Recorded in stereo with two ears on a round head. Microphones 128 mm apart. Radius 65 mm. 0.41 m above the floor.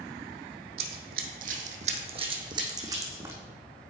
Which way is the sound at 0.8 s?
70° right (ahead or behind).